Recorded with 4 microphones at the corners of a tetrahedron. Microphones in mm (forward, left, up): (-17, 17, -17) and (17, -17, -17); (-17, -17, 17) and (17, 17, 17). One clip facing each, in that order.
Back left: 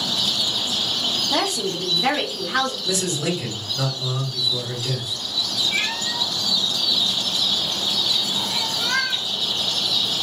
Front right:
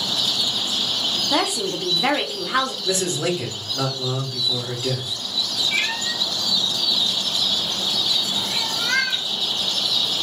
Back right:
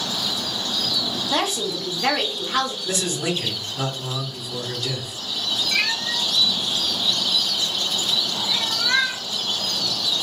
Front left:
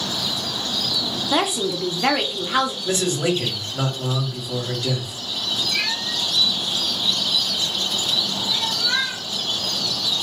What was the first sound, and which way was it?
A woman speaking, 10° right.